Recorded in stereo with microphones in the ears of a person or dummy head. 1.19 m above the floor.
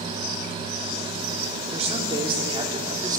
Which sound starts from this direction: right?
A man speaking, at 1.7 s.